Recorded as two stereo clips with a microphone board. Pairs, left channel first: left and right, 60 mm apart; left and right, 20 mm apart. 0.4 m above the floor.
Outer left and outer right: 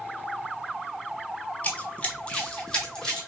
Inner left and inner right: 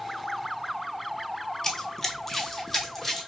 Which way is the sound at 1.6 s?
25° left (ahead or behind).